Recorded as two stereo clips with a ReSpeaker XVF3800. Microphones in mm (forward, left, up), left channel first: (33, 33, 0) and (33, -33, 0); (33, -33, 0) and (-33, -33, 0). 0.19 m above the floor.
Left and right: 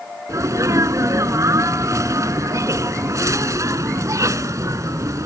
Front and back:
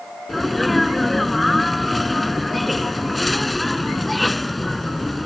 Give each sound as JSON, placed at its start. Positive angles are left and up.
{"t": 0.3, "sound": "a sneeze", "azimuth_deg": -90}